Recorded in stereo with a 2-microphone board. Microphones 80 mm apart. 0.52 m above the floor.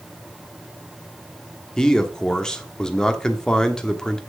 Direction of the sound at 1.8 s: 10° left (ahead or behind).